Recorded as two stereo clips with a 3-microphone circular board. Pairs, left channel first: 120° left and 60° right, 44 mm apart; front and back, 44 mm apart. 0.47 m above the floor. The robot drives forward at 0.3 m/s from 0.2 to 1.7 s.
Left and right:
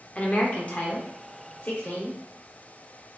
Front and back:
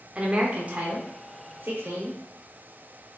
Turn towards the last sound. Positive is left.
turn(degrees=160)